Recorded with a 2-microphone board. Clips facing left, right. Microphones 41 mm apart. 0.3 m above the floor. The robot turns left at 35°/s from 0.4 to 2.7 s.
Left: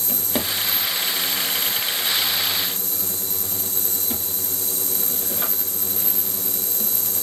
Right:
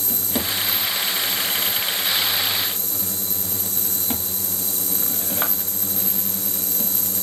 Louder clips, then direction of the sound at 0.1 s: Even; 20° left (ahead or behind).